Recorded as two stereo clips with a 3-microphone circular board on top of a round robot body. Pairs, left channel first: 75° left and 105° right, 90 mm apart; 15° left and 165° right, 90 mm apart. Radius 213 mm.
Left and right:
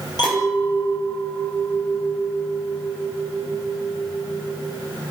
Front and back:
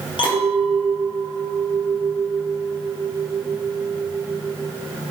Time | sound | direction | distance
0.2 | a clink | 30° left | 3.5 m